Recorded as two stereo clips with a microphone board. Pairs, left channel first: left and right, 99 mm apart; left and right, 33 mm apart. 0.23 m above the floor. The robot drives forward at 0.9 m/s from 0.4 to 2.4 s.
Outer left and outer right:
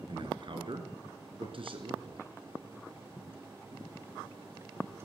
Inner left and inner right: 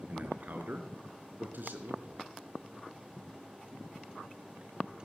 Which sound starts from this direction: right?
A man speaking, at 0.1 s.